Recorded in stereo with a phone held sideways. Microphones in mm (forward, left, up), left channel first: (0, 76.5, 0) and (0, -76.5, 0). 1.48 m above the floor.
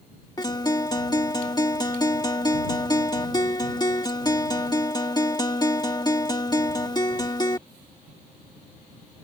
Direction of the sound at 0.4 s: 25° left (ahead or behind).